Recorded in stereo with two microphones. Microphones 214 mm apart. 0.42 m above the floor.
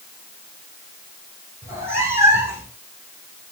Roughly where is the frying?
I don't hear frying.